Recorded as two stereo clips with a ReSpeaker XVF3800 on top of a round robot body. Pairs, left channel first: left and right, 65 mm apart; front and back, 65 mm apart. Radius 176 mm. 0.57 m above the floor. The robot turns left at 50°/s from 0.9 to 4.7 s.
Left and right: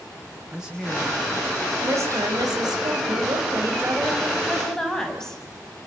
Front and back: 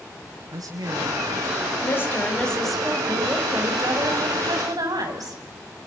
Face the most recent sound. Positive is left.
turn(degrees=170)